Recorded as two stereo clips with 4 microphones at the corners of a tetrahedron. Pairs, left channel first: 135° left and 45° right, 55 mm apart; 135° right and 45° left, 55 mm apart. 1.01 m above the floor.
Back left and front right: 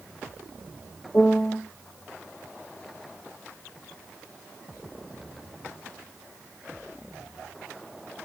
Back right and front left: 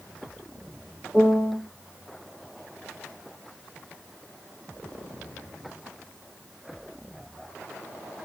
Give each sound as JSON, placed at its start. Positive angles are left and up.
{"t": 1.1, "sound": "a piano", "azimuth_deg": 165, "distance_m": 0.9}